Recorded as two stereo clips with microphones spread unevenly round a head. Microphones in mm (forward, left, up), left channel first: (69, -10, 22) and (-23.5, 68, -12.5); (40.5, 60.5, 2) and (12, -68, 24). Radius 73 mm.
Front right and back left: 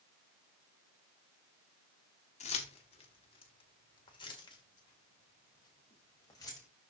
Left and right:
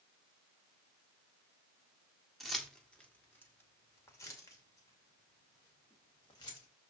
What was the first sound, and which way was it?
Keys jangling, 15° right.